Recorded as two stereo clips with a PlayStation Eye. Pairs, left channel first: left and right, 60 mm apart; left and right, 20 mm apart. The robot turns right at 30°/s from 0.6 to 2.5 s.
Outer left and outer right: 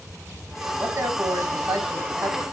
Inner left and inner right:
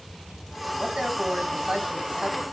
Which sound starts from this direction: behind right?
A man speaking, at 0.8 s.